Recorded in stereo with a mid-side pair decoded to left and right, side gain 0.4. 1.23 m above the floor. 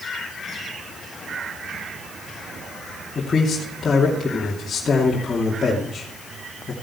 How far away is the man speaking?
About 2.5 m.